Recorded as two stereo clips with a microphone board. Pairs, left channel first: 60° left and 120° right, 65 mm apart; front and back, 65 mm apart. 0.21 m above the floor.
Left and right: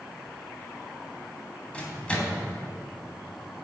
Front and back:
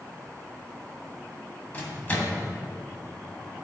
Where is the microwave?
10° left, 1.0 m.